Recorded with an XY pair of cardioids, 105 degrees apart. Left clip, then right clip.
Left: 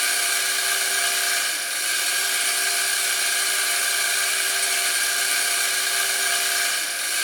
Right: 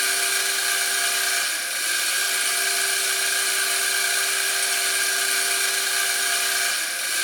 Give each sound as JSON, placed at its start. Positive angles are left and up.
{"t": 0.0, "sound": "a machine running", "azimuth_deg": 0, "distance_m": 3.5}